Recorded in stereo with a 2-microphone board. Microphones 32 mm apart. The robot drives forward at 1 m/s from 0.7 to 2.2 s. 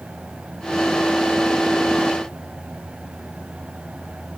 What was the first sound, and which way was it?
Only background noise.